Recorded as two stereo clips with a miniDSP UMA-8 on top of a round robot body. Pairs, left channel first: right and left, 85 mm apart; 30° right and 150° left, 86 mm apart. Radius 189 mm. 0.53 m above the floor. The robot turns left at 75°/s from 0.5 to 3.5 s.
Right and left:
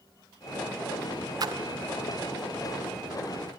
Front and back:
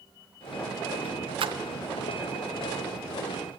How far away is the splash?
About 0.5 m.